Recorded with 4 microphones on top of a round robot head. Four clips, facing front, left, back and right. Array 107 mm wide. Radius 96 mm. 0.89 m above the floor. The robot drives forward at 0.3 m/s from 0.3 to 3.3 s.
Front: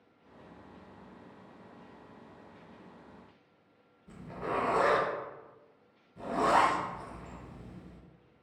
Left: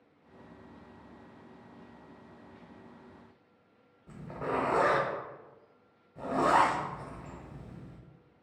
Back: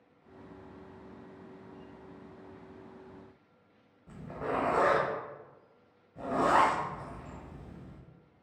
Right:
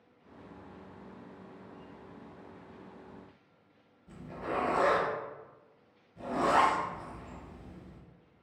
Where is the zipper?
135° left, 0.7 m.